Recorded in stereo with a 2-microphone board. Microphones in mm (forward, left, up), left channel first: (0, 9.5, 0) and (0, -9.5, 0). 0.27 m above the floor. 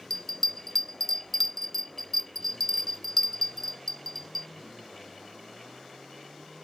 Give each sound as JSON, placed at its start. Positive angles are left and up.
{"t": 0.1, "sound": "a bell", "side_deg": 20}